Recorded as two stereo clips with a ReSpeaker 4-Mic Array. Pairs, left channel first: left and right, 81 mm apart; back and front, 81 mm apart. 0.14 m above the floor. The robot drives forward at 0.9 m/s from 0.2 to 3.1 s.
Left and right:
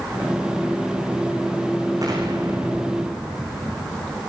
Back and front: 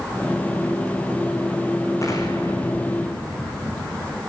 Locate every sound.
2.0 s an explosion: 135° right, 4.5 m; by 4.2 s 140° right, 5 m